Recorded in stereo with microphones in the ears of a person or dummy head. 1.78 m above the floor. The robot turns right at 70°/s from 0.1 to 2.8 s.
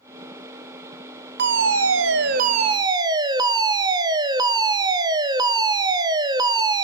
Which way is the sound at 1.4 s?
120° right.